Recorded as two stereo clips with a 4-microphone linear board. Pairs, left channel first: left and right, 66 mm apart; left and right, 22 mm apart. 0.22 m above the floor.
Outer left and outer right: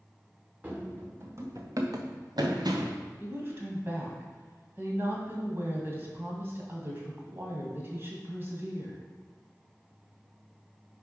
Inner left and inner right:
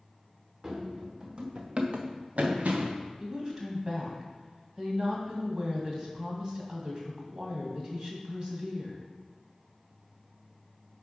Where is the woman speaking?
35° right (ahead or behind), 1.8 m.